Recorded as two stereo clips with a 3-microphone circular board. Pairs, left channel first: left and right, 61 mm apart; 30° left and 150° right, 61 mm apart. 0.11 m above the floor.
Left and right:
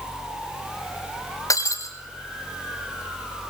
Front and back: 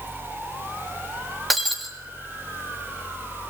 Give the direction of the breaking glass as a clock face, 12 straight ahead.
8 o'clock.